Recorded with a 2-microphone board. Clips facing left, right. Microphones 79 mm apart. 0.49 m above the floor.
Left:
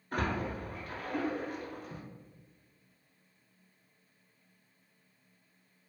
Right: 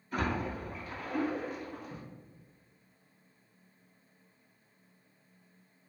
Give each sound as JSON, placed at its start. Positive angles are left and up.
{"t": 0.1, "sound": "a splash", "side_deg": 55, "distance_m": 1.1}